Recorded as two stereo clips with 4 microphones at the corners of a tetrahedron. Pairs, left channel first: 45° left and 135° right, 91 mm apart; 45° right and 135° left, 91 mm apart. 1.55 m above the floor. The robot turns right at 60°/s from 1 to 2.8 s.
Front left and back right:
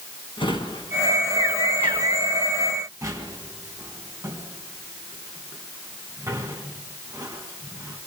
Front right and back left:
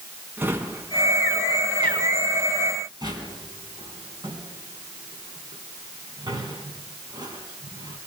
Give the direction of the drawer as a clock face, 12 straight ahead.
10 o'clock.